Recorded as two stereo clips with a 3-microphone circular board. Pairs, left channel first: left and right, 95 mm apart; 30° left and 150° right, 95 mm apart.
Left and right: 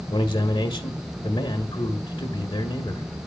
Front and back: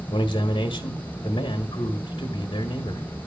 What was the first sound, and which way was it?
A man speaking, 65° left.